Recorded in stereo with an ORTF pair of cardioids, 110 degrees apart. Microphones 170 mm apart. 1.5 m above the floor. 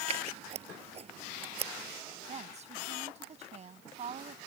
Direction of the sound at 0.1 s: 40° right.